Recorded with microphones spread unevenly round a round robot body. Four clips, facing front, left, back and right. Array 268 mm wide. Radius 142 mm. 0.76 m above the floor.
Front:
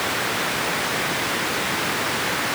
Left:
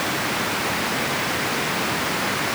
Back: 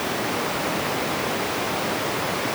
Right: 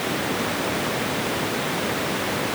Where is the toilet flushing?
No toilet flushing in this recording.